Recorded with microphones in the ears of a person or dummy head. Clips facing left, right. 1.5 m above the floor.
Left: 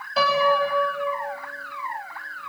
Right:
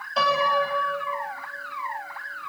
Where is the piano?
5° left (ahead or behind), 4.5 m.